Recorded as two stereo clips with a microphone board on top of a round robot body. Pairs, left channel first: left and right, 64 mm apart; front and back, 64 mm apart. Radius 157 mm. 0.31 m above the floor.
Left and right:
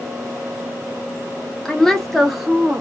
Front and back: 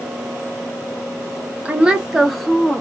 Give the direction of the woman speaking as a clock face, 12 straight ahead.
7 o'clock.